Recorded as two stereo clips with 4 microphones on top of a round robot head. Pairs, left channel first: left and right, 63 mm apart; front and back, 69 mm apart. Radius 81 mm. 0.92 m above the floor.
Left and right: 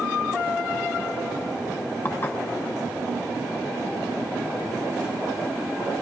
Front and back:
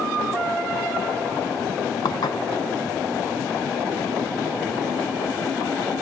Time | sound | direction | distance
2.0 | dishes clattering | 25° left | 0.8 m